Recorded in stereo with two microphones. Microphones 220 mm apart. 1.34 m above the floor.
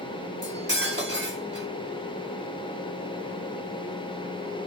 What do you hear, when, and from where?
0.4 s cutlery clinking: 55° right (ahead or behind), 3 m